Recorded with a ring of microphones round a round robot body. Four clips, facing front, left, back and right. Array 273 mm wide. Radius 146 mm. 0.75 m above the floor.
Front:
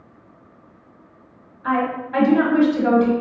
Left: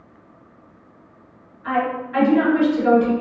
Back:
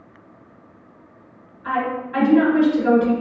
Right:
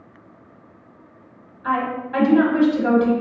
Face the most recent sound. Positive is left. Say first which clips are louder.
# left 1 dB, front 2 dB
turn(degrees=-25)